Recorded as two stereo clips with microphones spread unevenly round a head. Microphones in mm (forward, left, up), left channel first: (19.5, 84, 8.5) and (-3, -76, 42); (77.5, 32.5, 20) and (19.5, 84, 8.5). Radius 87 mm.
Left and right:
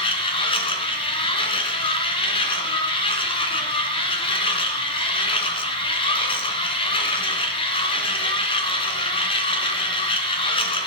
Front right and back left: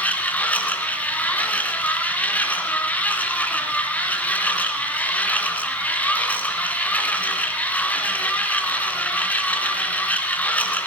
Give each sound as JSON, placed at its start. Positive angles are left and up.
{"t": 0.0, "sound": "a machine running", "azimuth_deg": 20, "distance_m": 2.5}